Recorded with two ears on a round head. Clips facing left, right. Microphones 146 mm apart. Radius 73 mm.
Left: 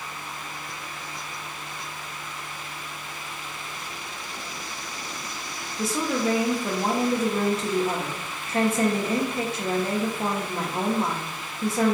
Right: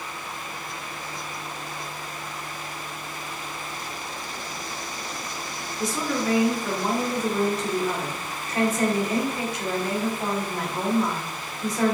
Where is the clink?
I don't hear a clink.